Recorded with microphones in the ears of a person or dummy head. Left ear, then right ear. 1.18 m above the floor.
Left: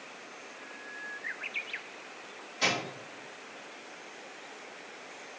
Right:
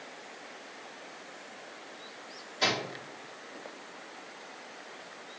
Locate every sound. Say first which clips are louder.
2.6 s a microwave: even; 5° right (ahead or behind), 1.2 m